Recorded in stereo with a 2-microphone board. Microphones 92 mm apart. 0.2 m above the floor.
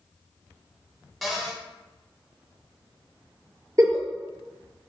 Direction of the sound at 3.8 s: 40° right (ahead or behind).